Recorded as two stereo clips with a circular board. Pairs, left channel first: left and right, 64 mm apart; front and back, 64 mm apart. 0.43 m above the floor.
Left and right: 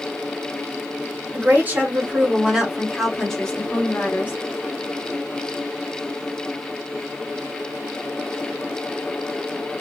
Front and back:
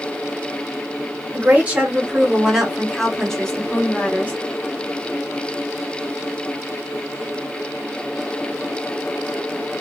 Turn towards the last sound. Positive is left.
turn(degrees=50)